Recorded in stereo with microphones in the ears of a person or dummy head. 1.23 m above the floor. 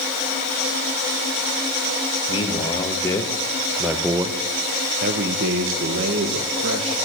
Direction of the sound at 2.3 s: 30° left (ahead or behind).